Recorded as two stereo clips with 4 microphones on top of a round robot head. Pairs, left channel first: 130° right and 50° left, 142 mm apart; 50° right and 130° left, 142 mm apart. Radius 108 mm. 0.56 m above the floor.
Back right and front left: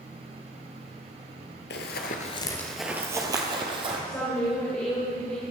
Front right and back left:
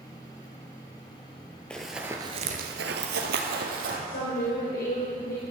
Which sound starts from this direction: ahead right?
A woman speaking, at 4.1 s.